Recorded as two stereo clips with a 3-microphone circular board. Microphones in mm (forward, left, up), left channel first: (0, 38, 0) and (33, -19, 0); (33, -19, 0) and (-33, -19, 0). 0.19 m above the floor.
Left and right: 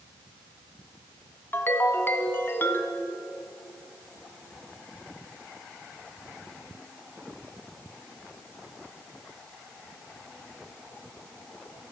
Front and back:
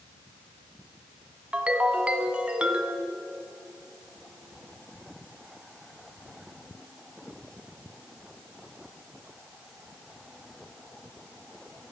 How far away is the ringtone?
About 0.9 m.